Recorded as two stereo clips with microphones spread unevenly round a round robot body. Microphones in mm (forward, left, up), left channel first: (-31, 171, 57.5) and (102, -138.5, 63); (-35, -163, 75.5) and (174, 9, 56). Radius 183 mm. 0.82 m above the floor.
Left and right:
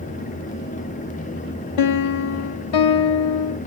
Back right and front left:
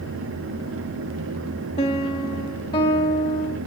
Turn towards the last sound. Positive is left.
turn(degrees=145)